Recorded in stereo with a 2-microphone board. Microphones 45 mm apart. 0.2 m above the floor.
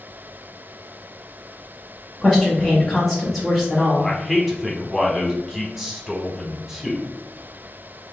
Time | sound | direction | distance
2.2 | a woman speaking | centre (ahead or behind) | 1.1 m
4.0 | a man speaking | 5° right (ahead or behind) | 1.2 m